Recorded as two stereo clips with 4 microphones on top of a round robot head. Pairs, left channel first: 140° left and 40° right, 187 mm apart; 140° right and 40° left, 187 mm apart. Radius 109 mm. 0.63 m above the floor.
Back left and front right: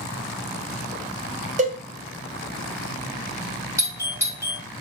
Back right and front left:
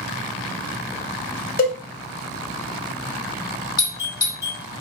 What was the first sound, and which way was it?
A cowbell, 95° right.